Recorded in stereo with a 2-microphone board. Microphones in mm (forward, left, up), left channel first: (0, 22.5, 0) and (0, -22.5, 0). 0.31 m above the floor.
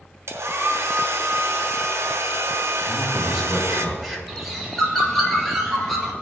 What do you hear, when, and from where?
0.3 s a hair dryer: 75° right (ahead or behind), 1.1 m
2.9 s a man speaking: centre (ahead or behind), 2.5 m
4.3 s a bird: 5° left (ahead or behind), 1.8 m